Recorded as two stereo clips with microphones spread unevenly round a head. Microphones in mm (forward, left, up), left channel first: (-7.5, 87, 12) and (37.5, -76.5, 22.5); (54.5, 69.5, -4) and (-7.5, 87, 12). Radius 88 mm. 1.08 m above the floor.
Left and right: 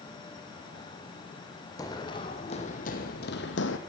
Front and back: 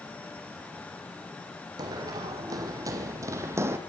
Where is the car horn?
No car horn in this recording.